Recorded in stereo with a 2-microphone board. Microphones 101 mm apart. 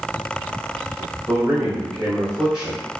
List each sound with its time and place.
1.3 s a man speaking: 5° right (ahead or behind), 1.0 m